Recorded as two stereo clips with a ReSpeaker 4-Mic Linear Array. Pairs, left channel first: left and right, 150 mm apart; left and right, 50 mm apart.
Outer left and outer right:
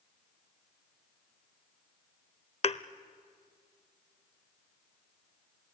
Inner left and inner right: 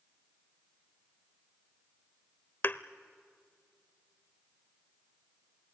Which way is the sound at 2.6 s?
45° left (ahead or behind).